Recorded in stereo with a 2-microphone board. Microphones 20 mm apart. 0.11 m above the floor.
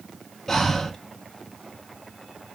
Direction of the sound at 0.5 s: 15° left (ahead or behind).